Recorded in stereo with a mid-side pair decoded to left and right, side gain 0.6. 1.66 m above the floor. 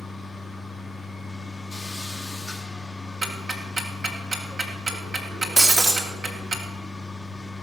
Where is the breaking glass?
25° right, 2.5 m.